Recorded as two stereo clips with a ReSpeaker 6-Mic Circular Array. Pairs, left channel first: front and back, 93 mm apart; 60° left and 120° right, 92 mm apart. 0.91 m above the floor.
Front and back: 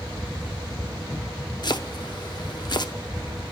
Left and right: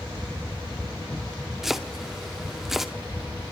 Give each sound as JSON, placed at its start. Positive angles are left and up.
{"t": 1.6, "sound": "chopping", "azimuth_deg": -35, "distance_m": 0.8}